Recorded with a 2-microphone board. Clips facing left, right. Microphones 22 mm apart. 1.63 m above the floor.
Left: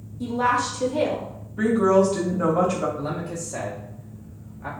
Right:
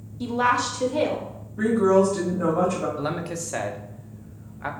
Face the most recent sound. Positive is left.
turn(degrees=-70)  # may be behind; listen again after turning